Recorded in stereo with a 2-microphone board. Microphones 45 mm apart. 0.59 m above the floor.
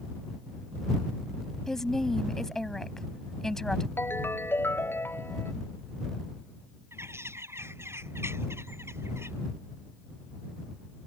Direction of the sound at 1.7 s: 10° left (ahead or behind).